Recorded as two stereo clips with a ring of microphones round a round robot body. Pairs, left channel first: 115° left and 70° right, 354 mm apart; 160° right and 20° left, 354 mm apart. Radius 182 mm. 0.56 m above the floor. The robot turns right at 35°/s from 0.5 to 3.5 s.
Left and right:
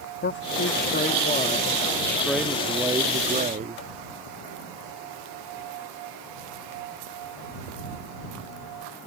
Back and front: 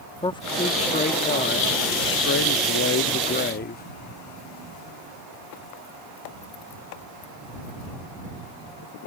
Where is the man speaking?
135° left; by 3.8 s 120° right.